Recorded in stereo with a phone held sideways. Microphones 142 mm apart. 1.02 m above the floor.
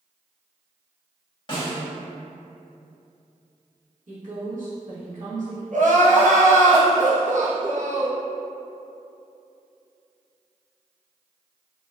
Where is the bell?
No bell in this recording.